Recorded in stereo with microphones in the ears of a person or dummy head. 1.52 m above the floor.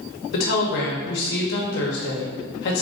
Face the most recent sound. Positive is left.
turn(degrees=60)  # may be behind; listen again after turning